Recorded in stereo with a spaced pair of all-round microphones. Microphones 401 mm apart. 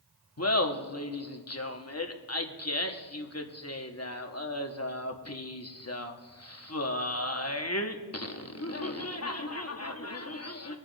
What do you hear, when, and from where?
0.4 s laughter: 40° left (ahead or behind), 1.0 m